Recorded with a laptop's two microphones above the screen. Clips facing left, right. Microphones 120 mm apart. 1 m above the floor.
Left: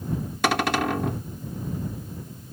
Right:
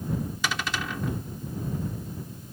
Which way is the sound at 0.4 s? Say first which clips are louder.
Left 13 dB; 60° left (ahead or behind).